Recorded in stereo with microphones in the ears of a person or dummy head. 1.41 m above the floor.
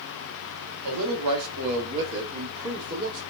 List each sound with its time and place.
0.8 s a man speaking: 85° right, 1.1 m; by 3.2 s 45° right (ahead or behind), 1.6 m